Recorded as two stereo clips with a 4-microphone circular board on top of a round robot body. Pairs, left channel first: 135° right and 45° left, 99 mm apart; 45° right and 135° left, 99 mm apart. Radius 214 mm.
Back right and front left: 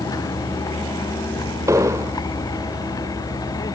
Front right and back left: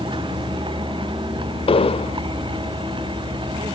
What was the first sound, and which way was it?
A vehicle, 170° left.